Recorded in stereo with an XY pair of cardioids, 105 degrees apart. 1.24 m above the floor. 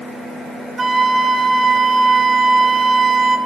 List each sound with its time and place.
0.8 s a flute: 30° right, 0.6 m